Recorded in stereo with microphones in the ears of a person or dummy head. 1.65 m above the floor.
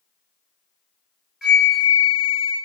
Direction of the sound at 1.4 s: 5° right (ahead or behind).